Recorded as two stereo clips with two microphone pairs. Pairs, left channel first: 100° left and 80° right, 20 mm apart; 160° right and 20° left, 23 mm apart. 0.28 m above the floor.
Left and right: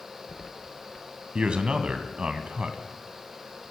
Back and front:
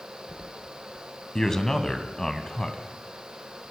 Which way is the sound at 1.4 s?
90° right.